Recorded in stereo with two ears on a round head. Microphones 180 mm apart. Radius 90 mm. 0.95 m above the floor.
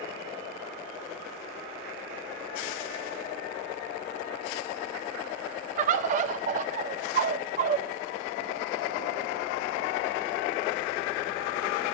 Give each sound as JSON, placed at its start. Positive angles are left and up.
{"t": 5.8, "sound": "a bird", "side_deg": -40, "distance_m": 0.6}